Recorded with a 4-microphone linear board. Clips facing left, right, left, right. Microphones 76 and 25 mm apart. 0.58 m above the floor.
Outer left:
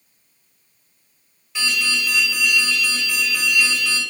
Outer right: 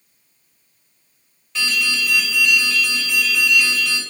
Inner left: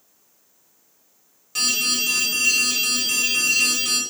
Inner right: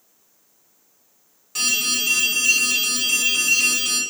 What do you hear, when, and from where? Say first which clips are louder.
1.6 s an alarm: outer right 1 dB, even; 5° left (ahead or behind), 1.9 m